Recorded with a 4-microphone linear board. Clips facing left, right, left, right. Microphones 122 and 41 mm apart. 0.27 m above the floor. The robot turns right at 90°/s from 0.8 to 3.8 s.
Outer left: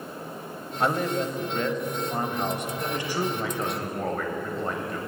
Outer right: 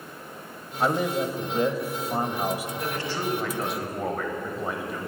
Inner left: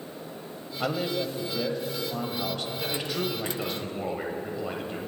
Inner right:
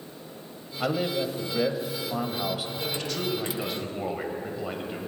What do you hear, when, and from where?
0.8 s a man speaking: centre (ahead or behind), 1.0 m; by 2.7 s 5° right (ahead or behind), 1.0 m
2.8 s a man speaking: 20° left (ahead or behind), 1.5 m; by 5.1 s 5° right (ahead or behind), 1.5 m